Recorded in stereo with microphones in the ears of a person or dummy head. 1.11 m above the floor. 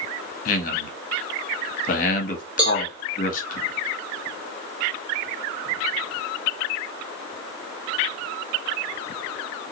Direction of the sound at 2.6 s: 5° right (ahead or behind).